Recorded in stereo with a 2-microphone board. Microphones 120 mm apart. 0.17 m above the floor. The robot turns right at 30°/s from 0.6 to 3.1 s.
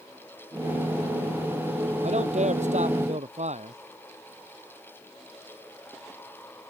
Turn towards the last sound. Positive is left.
turn(degrees=-75)